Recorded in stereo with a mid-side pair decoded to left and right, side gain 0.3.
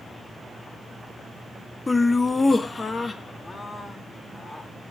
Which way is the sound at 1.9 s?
30° left.